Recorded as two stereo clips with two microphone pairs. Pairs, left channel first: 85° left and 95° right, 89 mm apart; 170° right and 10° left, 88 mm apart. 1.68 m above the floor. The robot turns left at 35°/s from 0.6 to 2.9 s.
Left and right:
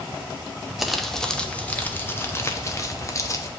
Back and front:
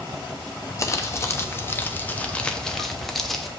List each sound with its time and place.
0.8 s crumpling: 175° right, 0.6 m; by 3.5 s 110° left, 0.6 m